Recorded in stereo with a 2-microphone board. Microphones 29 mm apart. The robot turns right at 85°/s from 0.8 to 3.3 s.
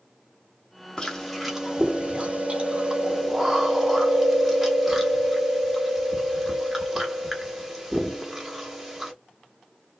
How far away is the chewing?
About 0.9 m.